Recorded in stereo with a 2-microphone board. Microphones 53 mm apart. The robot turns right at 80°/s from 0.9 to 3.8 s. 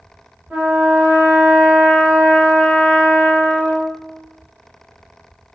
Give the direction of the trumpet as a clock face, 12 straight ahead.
5 o'clock.